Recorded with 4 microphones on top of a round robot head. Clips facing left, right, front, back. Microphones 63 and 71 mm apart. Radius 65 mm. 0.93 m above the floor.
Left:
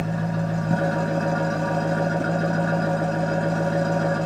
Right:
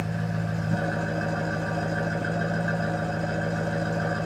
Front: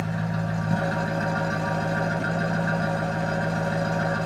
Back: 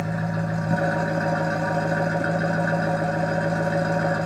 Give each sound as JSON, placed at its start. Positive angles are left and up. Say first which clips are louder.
{"t": 0.0, "sound": "an engine running", "louder": "left 4 dB, back 2 dB", "azimuth_deg": 115, "distance_m": 1.2}